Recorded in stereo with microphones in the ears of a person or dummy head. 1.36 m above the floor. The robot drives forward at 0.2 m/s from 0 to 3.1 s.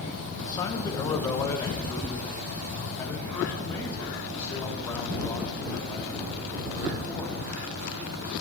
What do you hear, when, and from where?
0.4 s a man speaking: 20° left (ahead or behind), 0.8 m; by 7.3 s 15° left (ahead or behind), 1.3 m